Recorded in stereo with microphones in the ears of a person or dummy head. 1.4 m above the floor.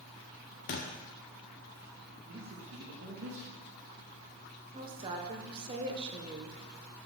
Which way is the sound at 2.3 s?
65° right (ahead or behind).